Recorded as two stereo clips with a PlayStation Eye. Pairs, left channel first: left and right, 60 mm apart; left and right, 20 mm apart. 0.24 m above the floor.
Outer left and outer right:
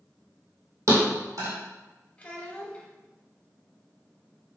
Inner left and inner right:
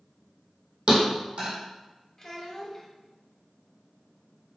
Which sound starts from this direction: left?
A child speaking, at 2.2 s.